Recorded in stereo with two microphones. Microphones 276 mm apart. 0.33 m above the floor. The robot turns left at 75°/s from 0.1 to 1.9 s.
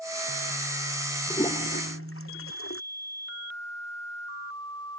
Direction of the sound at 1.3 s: 10° left (ahead or behind).